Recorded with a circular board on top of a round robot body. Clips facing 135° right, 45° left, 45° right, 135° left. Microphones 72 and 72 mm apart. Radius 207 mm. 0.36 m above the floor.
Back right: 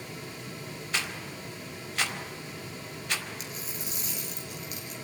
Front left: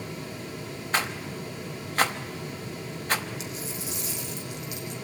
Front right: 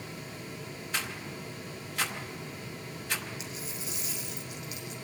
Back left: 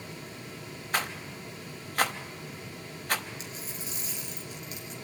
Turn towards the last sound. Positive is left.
turn(degrees=-175)